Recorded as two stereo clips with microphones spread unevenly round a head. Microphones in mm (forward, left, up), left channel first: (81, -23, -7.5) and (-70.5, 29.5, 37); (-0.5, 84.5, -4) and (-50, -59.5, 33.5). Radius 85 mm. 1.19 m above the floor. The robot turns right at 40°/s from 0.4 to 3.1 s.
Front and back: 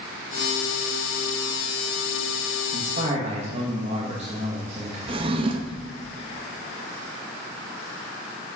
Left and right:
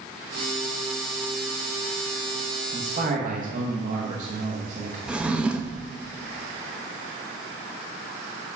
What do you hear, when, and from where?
2.7 s a man speaking: 160° right, 1.0 m; by 5.0 s 145° right, 1.0 m
5.1 s a drawer: 175° right, 0.6 m